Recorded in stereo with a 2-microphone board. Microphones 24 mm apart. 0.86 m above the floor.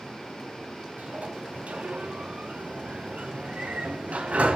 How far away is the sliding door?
About 3.5 m.